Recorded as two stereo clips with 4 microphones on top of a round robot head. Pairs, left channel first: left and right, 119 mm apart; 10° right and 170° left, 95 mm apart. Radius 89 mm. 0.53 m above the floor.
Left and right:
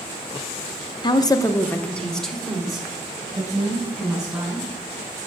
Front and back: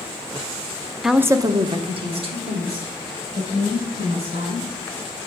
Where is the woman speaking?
85° left, 0.8 m; by 4.7 s 175° right, 5 m.